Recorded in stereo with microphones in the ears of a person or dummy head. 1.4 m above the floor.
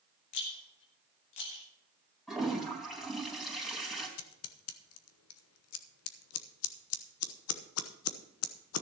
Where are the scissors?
85° left, 1.0 m.